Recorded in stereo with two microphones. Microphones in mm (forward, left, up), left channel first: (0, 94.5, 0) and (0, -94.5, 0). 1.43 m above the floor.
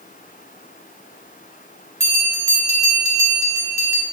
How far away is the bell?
About 0.6 m.